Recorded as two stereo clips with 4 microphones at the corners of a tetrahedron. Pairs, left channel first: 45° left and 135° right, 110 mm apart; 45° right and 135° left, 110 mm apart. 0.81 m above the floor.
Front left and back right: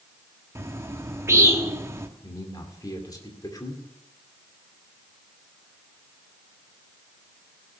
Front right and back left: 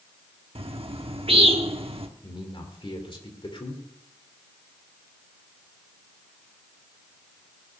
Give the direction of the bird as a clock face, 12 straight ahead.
7 o'clock.